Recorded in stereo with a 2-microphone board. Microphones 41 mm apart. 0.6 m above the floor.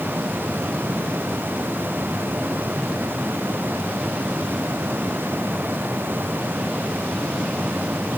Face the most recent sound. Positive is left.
No sound to turn to.